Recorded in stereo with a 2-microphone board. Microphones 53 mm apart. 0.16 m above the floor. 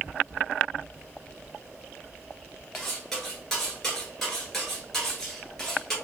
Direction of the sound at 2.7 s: 10° left (ahead or behind).